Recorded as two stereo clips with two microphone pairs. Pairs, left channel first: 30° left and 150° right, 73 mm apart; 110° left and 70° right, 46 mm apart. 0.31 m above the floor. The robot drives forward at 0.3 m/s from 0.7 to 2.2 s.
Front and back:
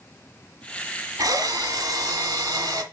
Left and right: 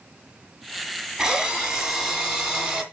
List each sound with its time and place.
1.2 s a drill: 140° right, 1.7 m; by 2.8 s 145° right, 1.9 m